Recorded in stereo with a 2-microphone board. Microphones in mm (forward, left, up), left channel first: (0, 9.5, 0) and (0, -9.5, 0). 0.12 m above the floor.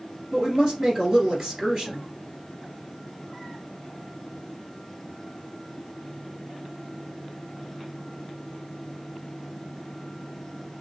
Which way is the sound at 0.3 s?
30° right (ahead or behind).